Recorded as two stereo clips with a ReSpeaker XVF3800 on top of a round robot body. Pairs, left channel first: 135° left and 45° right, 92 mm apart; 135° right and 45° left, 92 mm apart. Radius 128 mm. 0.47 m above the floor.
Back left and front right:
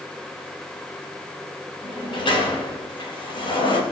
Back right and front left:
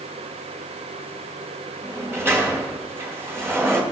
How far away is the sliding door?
About 3.5 m.